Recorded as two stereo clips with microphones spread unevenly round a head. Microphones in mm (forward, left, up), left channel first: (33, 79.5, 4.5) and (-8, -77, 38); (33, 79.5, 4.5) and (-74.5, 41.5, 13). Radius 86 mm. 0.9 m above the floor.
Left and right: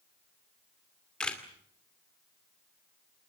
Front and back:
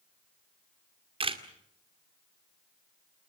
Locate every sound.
1.2 s a camera shutter: 160° left, 2.5 m